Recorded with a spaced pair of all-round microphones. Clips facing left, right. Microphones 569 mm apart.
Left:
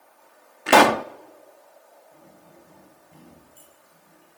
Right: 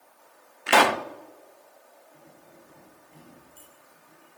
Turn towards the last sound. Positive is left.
turn(degrees=60)  # may be behind; listen again after turning